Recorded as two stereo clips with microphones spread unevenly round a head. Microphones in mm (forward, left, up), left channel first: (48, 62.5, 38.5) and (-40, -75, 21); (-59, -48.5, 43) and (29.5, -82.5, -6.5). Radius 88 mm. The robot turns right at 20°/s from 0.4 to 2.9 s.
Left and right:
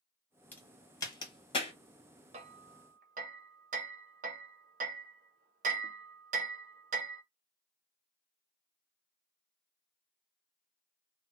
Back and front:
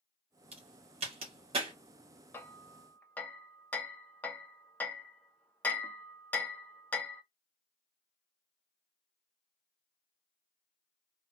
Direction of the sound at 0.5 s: 20° right.